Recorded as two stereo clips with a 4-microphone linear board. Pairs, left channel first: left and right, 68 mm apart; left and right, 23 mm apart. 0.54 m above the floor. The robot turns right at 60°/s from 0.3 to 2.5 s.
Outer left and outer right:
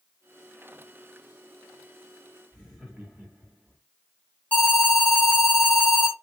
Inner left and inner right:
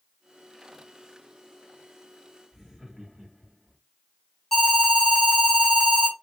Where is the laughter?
20° right (ahead or behind), 2.0 m.